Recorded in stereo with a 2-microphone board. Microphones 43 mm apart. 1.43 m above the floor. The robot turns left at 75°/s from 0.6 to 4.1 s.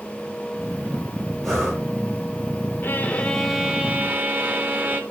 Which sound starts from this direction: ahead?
Breathing, at 1.4 s.